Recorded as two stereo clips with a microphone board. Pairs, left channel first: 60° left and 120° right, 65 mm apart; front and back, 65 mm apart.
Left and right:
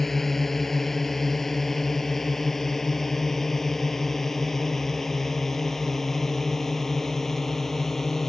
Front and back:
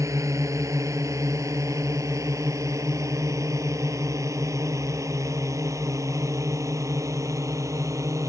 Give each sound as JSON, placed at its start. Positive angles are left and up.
{"t": 0.0, "sound": "a drone", "azimuth_deg": 145}